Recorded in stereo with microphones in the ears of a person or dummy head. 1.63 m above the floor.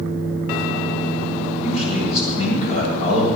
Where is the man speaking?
40° left (ahead or behind), 6.5 m.